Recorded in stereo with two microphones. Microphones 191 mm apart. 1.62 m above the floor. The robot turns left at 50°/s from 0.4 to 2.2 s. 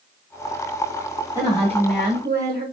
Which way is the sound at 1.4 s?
15° right.